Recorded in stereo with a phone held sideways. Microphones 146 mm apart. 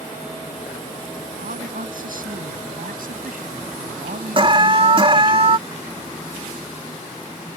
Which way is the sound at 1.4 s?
75° right (ahead or behind).